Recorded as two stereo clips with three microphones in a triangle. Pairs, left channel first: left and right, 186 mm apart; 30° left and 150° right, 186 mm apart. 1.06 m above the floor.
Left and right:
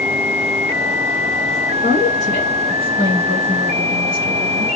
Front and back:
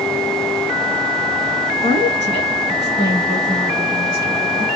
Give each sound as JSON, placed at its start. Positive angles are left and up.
{"t": 1.8, "sound": "a woman speaking", "azimuth_deg": -130, "distance_m": 9.5}